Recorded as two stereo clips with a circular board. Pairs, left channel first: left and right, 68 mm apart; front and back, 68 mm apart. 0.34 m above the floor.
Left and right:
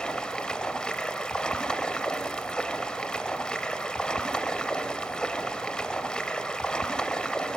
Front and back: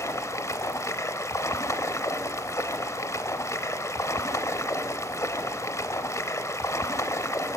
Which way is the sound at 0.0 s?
15° left.